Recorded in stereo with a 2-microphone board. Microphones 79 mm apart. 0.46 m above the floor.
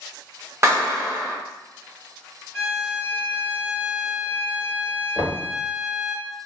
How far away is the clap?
About 1.1 m.